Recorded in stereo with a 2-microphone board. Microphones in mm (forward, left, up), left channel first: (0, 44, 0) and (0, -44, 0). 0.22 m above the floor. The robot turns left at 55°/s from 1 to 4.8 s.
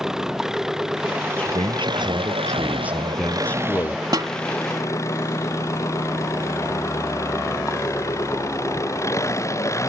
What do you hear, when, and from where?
0.0 s an engine running: 5° right; by 9.9 s 145° left
1.4 s a man speaking: 80° right; by 4.0 s 130° left
4.1 s a snare drum: 50° right (ahead or behind); by 4.3 s 45° right (ahead or behind)